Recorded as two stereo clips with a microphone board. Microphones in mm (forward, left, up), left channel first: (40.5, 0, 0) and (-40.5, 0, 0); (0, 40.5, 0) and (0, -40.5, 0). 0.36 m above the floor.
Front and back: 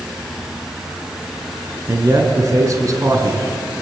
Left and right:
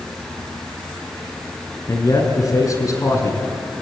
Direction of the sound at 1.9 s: 135° left.